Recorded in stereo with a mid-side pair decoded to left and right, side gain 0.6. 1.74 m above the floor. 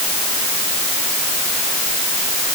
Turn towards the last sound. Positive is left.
No sound to turn to.